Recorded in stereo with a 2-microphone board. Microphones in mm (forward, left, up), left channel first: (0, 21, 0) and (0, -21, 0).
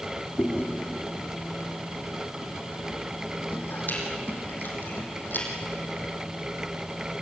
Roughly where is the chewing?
Left.